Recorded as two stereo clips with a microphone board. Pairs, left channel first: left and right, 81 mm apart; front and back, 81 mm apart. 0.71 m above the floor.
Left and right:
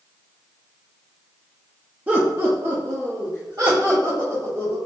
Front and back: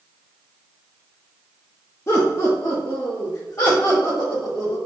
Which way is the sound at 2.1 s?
30° right.